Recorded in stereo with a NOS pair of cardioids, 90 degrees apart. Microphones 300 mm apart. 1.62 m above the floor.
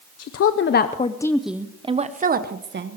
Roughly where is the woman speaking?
Ahead left.